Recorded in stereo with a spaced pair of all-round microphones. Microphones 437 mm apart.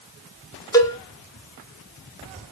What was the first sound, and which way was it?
A cowbell, 10° left (ahead or behind).